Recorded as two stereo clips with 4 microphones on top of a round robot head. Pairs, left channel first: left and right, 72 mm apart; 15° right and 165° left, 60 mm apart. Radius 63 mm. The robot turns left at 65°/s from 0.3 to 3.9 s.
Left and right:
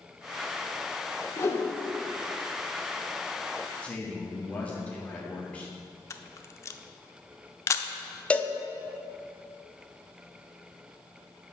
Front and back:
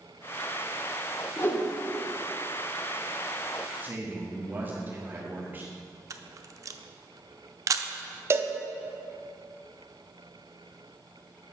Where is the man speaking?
150° left, 1.2 m; by 5.7 s 145° left, 1.2 m.